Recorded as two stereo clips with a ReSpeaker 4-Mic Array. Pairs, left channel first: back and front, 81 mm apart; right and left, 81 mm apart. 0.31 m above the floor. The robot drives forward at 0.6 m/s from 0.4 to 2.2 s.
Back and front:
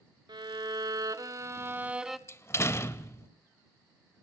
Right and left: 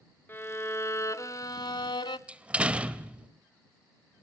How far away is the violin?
About 1.2 m.